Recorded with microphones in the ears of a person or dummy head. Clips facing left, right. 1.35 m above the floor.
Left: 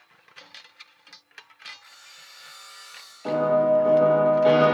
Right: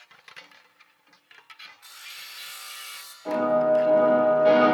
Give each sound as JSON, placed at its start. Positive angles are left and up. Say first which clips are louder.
{"t": 1.8, "sound": "sawing", "louder": "right 2 dB", "side_deg": -45, "distance_m": 0.6}
{"t": 3.2, "sound": "a piano", "louder": "left 1 dB", "side_deg": 65, "distance_m": 1.7}